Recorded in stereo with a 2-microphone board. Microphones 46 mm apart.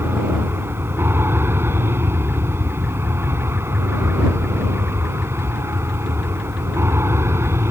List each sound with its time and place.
0.0 s an aircraft: 50° right (ahead or behind); by 7.7 s 60° right (ahead or behind)